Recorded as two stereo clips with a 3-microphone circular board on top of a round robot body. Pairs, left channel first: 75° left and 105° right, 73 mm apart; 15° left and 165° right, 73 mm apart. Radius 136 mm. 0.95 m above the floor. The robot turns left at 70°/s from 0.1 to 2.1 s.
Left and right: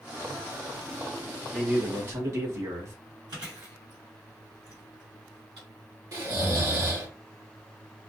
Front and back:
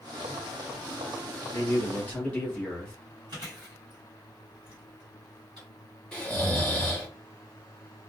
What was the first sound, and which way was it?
A man speaking, 15° right.